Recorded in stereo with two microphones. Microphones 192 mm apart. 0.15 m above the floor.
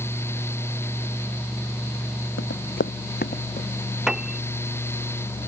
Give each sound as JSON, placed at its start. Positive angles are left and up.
{"t": 2.4, "sound": "running footsteps", "side_deg": 80}
{"t": 4.1, "sound": "a piano", "side_deg": -5}